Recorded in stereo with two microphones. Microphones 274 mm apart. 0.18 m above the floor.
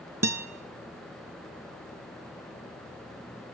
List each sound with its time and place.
0.2 s a guitar: 65° right (ahead or behind), 1.1 m